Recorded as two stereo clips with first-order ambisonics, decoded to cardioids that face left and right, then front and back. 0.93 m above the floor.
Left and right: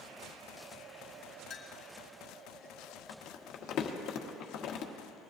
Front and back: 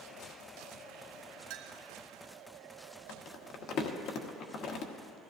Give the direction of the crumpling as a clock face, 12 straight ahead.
11 o'clock.